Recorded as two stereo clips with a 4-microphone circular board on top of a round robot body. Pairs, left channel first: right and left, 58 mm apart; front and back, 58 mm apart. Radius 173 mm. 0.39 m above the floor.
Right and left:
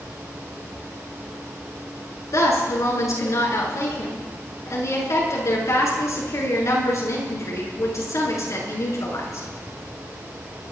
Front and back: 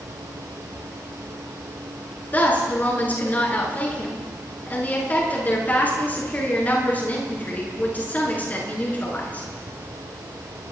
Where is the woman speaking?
60° right, 8.5 m.